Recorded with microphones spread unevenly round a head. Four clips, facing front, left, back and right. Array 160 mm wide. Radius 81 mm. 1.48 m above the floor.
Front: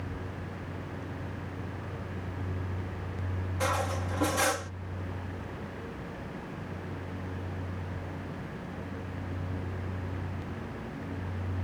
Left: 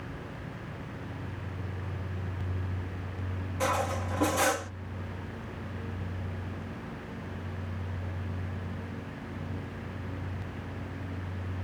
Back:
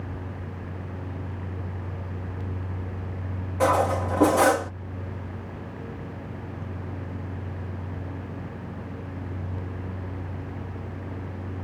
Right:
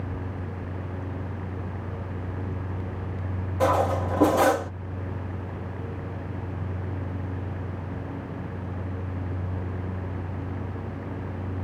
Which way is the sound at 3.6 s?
140° right.